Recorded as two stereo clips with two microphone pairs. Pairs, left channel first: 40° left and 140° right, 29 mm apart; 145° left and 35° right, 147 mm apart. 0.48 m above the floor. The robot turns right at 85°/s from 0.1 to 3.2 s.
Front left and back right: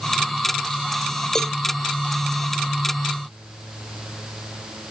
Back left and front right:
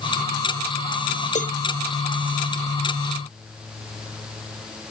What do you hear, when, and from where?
1.4 s a cowbell: 110° left; by 1.6 s 125° left